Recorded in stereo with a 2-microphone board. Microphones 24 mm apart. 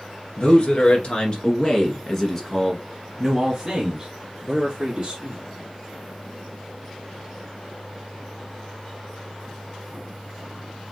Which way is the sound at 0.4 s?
60° left (ahead or behind).